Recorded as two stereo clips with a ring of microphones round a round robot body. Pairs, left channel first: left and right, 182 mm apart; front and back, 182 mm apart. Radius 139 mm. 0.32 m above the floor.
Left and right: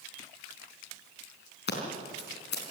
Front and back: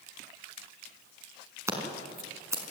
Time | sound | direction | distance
1.7 | scissors | 105° left | 4.5 m